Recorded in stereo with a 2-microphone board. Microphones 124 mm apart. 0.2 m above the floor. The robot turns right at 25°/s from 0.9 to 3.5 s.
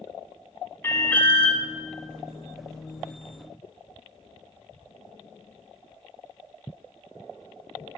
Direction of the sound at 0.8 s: 20° left (ahead or behind).